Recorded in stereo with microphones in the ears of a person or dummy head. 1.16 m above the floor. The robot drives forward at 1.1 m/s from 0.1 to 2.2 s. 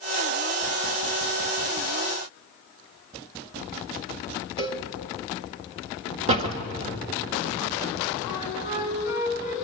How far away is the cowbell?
About 1.7 m.